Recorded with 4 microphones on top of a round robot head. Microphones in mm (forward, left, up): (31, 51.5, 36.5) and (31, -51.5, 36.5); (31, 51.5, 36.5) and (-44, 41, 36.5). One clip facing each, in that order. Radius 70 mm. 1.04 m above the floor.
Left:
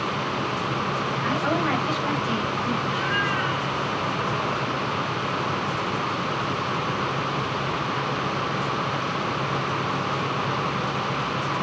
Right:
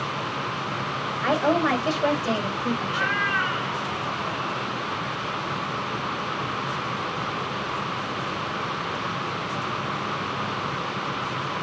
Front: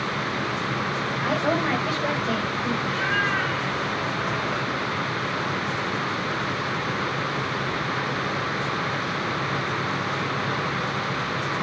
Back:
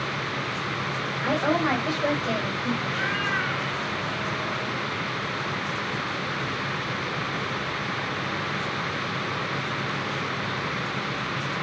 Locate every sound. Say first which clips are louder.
1.2 s a woman speaking: right 5 dB, back 1 dB; 105° right, 4.5 m; by 3.1 s 90° right, 5 m
2.8 s a cat meowing: left 1 dB, front 3 dB; 105° right, 5.5 m